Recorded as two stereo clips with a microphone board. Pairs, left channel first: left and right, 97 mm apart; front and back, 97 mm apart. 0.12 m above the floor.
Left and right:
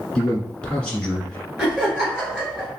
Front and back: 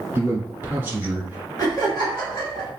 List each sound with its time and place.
0.1 s a man speaking: 155° left, 1.3 m
1.6 s laughter: 10° right, 1.7 m